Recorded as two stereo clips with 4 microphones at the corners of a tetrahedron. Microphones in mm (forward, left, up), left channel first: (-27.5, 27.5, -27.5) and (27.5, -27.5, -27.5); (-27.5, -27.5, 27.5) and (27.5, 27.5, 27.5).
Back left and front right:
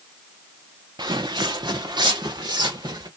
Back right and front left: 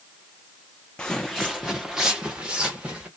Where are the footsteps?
60° right, 0.5 m; by 3.1 s 30° right, 1.6 m.